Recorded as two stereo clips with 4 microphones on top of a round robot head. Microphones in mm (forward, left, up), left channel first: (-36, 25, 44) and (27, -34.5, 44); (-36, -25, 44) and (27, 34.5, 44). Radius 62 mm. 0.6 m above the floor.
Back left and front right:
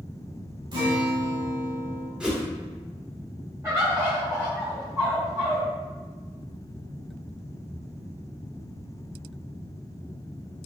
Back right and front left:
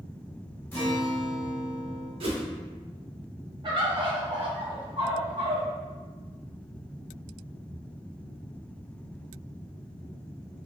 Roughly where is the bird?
Ahead.